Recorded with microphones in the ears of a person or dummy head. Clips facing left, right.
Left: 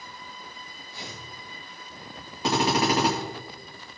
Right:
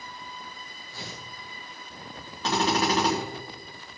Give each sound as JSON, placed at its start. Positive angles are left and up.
{"t": 0.9, "sound": "tearing paper", "side_deg": -40, "distance_m": 2.0}
{"t": 2.4, "sound": "a drill", "side_deg": 10, "distance_m": 2.0}